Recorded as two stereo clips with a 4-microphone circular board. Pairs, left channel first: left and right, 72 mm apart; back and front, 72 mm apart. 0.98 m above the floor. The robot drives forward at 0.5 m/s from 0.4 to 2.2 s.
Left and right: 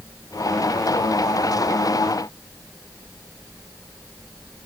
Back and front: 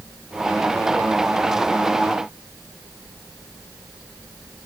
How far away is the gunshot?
No gunshot in this recording.